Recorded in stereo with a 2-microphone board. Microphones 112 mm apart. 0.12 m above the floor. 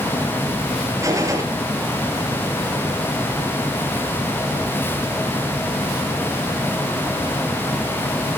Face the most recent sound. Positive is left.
turn(degrees=-30)  # may be behind; listen again after turning